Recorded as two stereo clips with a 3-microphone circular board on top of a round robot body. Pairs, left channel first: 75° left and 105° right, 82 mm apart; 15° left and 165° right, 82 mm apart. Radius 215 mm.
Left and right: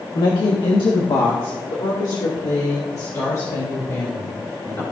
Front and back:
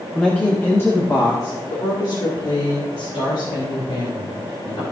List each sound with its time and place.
0.1 s a woman speaking: 95° left, 1.9 m; by 4.8 s 20° left, 5 m